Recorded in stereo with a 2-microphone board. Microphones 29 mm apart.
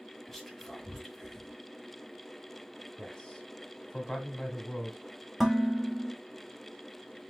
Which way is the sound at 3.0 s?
20° left (ahead or behind).